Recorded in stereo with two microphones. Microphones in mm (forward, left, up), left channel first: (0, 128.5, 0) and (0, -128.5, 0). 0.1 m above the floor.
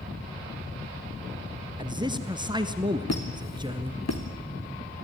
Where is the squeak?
65° left (ahead or behind), 2.5 m.